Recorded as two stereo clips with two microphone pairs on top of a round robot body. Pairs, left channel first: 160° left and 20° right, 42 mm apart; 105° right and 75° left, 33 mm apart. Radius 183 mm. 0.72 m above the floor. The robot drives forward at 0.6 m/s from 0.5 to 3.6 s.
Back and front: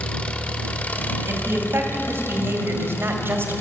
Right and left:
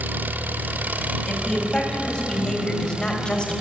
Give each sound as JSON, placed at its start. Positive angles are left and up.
{"t": 0.0, "sound": "an engine running", "azimuth_deg": 100, "distance_m": 1.8}
{"t": 1.3, "sound": "a woman speaking", "azimuth_deg": -35, "distance_m": 5.5}